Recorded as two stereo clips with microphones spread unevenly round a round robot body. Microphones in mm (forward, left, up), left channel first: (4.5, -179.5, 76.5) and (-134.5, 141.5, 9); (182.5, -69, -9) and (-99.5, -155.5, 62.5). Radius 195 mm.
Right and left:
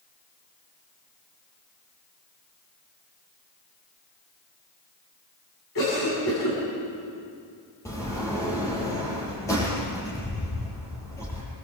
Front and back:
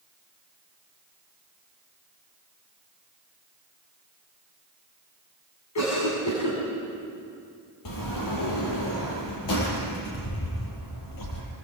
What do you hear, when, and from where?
5.8 s a cough: 5° right, 7 m
7.8 s a sliding door: 15° left, 7 m